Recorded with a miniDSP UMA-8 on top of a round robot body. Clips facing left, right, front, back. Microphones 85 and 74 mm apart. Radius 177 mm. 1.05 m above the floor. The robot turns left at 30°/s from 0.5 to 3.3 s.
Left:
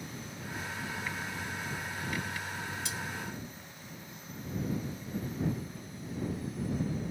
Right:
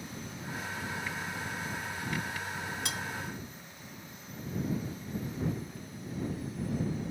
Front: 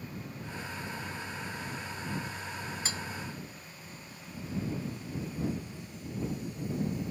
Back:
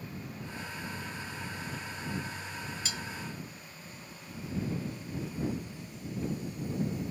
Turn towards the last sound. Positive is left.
turn(degrees=-65)